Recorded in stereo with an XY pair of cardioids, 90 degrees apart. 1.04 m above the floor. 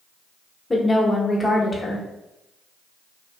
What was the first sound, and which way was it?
A woman speaking, 25° left.